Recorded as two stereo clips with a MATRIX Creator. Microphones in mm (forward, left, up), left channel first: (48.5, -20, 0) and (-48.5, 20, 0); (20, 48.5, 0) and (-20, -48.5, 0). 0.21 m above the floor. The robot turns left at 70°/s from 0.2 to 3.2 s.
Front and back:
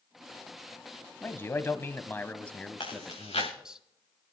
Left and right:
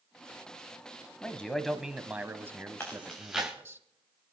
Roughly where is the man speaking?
Ahead.